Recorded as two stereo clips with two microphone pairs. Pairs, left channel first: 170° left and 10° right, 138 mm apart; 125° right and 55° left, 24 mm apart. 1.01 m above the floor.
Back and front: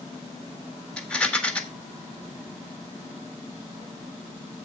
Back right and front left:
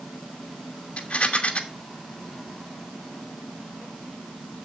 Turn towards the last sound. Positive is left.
turn(degrees=-110)